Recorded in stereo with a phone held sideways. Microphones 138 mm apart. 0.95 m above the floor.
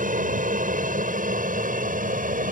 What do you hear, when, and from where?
0.0 s an aircraft: 70° right (ahead or behind)